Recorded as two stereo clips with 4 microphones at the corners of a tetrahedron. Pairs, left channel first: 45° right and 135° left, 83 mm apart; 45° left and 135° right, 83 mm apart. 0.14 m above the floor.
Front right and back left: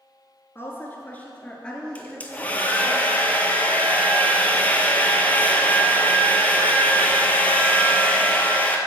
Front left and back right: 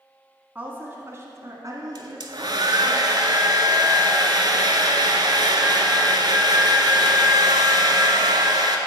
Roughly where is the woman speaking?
Right.